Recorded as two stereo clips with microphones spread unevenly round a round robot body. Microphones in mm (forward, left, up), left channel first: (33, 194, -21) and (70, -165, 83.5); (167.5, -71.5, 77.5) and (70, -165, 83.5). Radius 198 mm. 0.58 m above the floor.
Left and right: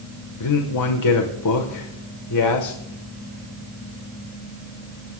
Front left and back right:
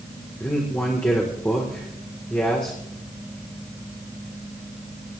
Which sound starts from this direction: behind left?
A man speaking, at 0.4 s.